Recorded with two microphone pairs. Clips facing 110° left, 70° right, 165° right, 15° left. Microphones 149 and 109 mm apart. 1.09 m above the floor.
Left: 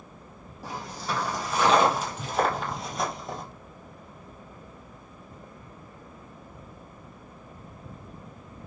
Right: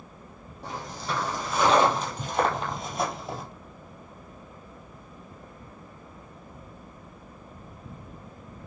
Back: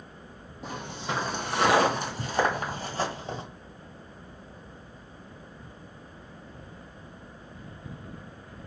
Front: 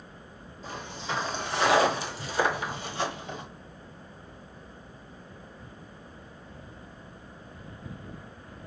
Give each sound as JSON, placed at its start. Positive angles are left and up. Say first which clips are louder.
{"t": 0.6, "sound": "footsteps", "louder": "even, back 2 dB", "azimuth_deg": -170, "distance_m": 2.5}